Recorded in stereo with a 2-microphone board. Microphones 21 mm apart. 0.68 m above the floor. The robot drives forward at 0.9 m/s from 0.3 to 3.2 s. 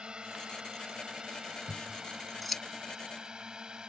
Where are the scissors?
10° left (ahead or behind); by 2.6 s 5° left (ahead or behind).